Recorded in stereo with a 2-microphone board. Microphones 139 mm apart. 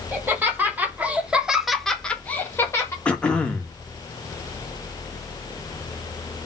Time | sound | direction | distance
0.1 | laughter | 15° right (ahead or behind) | 1.8 m
3.0 | throat clearing | 10° left (ahead or behind) | 0.9 m